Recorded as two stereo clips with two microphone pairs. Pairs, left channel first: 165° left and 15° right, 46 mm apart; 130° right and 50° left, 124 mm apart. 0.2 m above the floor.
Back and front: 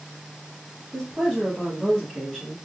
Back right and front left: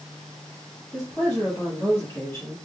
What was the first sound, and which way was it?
A woman speaking, 115° right.